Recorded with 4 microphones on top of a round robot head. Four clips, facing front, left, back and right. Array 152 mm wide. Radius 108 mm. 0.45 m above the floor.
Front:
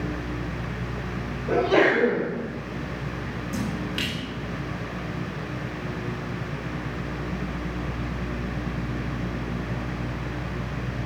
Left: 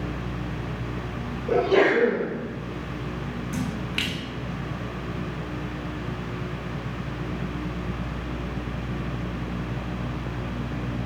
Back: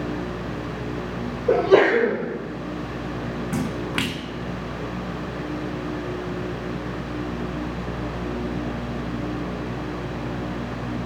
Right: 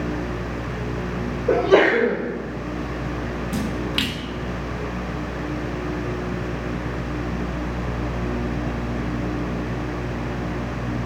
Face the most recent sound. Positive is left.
turn(degrees=-160)